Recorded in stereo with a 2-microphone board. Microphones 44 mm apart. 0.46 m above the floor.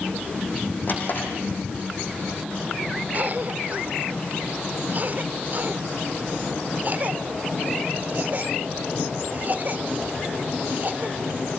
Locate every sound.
0.9 s a drawer: 45° left (ahead or behind), 5 m
3.1 s a cough: 40° right (ahead or behind), 1.4 m